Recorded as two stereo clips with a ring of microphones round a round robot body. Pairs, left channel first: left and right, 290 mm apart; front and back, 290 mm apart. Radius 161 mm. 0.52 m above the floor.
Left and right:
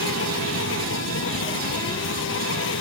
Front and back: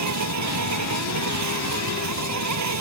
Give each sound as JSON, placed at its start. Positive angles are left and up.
{"t": 0.0, "sound": "an insect", "azimuth_deg": 145}